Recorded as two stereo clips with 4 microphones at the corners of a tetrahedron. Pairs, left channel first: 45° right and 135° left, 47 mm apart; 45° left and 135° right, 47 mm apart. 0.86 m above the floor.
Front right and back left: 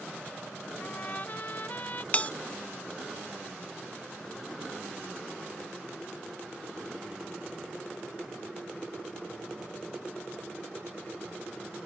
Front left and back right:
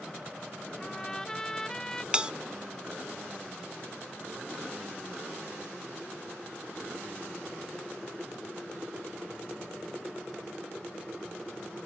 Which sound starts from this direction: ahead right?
A trumpet, at 0.8 s.